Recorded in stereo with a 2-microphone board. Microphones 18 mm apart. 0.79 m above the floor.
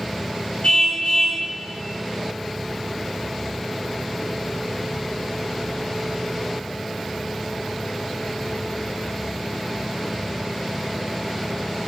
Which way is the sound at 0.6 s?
80° left.